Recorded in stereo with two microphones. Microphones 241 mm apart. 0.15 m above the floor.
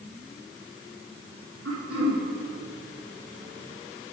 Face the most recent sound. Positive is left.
turn(degrees=-75)  # may be behind; listen again after turning